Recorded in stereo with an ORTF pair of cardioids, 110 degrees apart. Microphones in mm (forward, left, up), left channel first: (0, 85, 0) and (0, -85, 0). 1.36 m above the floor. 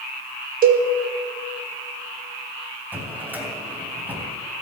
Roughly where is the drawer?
Ahead.